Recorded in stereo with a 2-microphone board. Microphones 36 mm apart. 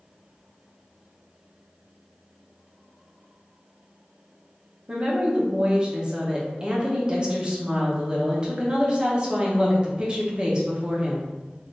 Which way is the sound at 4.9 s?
25° right (ahead or behind).